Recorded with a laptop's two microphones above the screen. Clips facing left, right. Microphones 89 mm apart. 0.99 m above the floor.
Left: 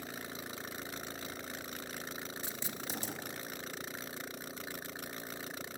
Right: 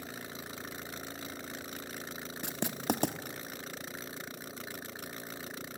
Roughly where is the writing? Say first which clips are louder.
Right 9 dB; right.